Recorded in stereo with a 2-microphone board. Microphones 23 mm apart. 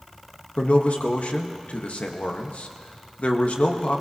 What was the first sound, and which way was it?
A man speaking, 80° left.